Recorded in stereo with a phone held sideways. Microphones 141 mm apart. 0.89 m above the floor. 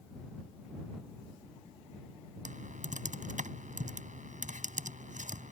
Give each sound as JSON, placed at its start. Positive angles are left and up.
{"t": 2.5, "sound": "typing on a keyboard", "side_deg": -60}